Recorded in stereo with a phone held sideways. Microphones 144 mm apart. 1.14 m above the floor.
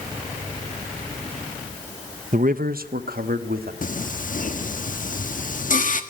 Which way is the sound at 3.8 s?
60° left (ahead or behind).